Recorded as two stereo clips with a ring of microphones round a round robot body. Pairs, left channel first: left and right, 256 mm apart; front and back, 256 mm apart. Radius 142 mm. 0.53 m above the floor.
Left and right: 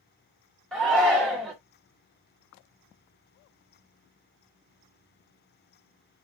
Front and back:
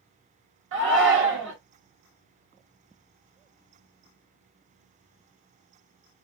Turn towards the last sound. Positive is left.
turn(degrees=175)